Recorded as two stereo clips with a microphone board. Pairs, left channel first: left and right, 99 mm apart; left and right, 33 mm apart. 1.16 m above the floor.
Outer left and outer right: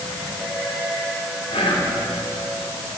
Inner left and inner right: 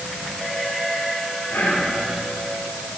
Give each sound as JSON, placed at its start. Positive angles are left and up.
{"t": 1.5, "sound": "whispering", "side_deg": 75, "distance_m": 2.5}